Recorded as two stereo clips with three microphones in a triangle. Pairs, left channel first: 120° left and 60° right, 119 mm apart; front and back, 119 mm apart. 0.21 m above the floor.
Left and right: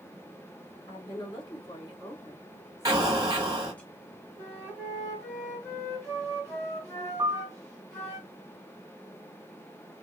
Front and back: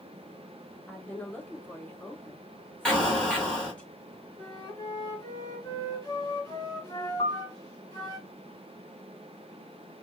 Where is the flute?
60° left, 2 m.